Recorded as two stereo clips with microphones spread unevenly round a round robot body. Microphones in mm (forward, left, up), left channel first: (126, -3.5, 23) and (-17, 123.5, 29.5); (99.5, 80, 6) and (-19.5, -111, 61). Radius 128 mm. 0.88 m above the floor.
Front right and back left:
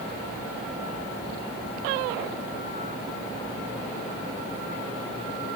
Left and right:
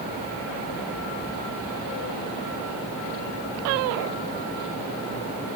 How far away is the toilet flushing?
I don't hear a toilet flushing.